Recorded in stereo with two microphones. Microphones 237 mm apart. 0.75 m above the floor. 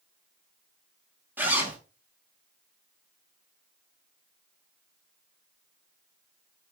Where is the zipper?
10° right (ahead or behind), 1.1 m.